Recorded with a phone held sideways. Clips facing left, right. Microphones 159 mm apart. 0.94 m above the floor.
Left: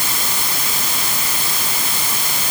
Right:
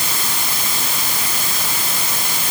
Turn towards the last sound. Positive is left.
No sound to turn to.